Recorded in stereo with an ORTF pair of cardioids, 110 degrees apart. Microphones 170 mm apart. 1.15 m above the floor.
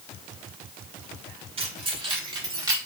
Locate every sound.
1.6 s keys jangling: 35° right, 4 m; by 2.8 s 20° right, 3 m